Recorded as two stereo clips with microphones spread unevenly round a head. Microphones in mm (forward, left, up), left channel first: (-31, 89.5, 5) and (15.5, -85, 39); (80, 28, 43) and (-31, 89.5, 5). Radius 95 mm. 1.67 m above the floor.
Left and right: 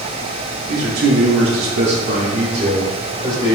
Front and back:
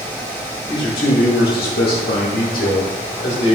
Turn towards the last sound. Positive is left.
turn(degrees=10)